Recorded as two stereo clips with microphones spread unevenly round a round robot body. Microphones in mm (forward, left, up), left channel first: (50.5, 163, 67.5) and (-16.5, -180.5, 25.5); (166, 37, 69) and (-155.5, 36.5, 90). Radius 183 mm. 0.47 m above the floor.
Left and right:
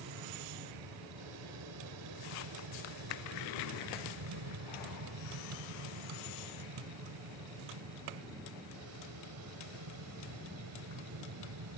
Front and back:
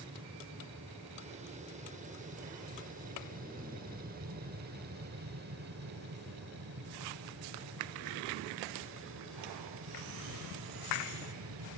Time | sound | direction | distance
0.0 | an aircraft | 110° right | ?